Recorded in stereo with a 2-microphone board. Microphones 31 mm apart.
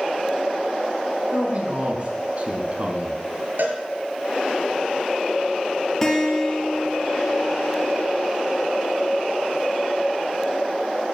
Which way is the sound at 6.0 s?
10° left (ahead or behind).